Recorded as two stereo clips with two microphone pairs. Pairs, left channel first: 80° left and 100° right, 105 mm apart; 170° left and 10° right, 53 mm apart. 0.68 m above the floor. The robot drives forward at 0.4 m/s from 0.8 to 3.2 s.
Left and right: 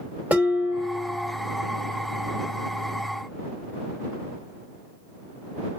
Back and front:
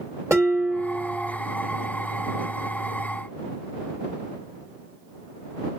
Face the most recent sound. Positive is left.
turn(degrees=-55)